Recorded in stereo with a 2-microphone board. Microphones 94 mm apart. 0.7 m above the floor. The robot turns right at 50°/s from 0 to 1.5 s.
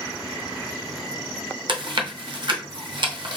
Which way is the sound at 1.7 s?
55° right (ahead or behind).